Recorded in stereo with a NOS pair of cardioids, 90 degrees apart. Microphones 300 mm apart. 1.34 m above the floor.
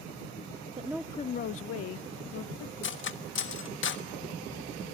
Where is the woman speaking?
20° right, 0.5 m; by 2.7 s 70° left, 1.7 m.